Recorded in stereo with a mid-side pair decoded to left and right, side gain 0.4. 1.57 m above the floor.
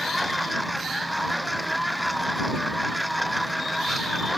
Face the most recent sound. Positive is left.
turn(degrees=-5)